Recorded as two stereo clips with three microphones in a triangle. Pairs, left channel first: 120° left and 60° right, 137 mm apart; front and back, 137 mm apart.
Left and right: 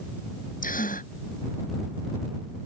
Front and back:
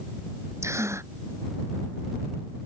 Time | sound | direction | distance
0.6 | a gasp | 110° left | ?